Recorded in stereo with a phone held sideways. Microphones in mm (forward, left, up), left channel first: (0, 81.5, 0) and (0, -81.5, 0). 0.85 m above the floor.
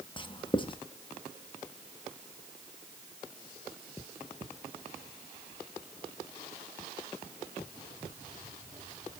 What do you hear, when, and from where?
0.2 s writing: 30° left (ahead or behind), 0.7 m